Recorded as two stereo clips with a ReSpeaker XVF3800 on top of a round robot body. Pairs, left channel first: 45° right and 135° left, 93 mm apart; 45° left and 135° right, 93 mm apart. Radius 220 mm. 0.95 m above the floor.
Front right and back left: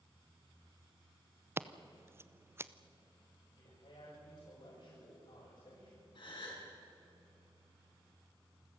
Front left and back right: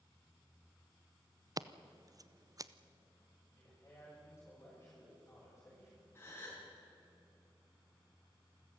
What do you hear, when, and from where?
1.6 s scissors: 170° right, 1.0 m
3.6 s a man speaking: 25° right, 8 m
6.2 s a gasp: 20° right, 6 m